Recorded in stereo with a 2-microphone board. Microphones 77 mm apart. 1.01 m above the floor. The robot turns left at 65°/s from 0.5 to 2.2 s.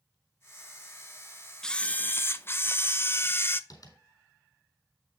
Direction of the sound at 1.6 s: 170° left.